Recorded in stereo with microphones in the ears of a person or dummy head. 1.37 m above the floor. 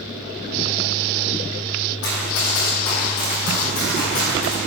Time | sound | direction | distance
2.0 | running footsteps | 50° left (ahead or behind) | 3.5 m